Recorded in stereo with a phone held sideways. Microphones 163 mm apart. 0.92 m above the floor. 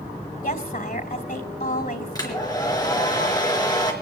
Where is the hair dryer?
25° left (ahead or behind), 4 m.